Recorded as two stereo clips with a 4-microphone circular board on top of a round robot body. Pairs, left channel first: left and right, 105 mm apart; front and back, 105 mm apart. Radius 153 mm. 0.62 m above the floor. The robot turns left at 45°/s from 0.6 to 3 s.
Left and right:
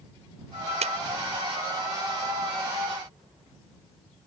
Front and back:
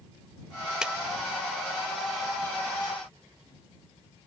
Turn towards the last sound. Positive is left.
turn(degrees=165)